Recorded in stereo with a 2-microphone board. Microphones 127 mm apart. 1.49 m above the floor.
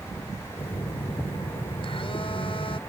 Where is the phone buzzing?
50° left (ahead or behind).